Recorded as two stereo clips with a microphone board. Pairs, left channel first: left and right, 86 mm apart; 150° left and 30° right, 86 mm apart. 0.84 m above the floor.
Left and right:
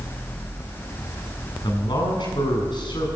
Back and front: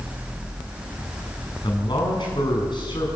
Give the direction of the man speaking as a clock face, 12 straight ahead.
8 o'clock.